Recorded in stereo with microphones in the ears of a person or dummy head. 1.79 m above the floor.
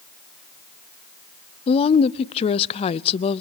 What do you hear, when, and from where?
1.7 s a woman speaking: 30° left (ahead or behind), 0.7 m